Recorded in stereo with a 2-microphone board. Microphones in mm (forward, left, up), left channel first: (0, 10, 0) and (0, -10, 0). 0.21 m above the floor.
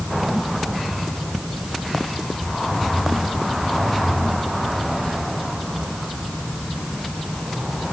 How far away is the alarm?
I don't hear an alarm.